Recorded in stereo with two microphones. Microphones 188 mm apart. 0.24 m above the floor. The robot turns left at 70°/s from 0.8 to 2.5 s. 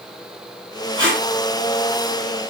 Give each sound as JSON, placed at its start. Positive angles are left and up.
{"t": 0.9, "sound": "tape being pulled", "side_deg": -20, "distance_m": 3.0}